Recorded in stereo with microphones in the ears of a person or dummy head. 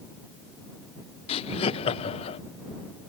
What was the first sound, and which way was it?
Laughter, 30° left (ahead or behind).